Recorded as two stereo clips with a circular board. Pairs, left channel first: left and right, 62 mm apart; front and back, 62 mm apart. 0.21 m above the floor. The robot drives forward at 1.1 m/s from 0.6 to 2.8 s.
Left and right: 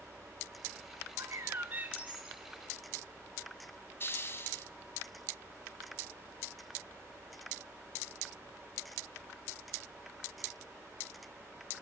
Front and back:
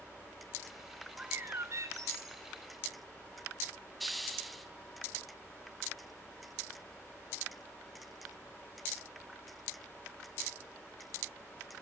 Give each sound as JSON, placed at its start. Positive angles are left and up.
{"t": 1.2, "sound": "a bird", "azimuth_deg": -105, "distance_m": 0.5}
{"t": 4.0, "sound": "a hiss", "azimuth_deg": 85, "distance_m": 0.9}